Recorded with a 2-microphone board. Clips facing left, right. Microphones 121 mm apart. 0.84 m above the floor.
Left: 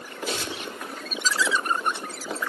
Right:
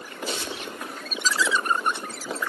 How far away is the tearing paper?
About 1.5 m.